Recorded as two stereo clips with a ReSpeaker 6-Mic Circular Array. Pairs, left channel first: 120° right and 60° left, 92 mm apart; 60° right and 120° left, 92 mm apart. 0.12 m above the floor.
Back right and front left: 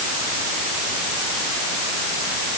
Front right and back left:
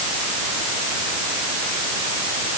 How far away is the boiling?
I don't hear boiling.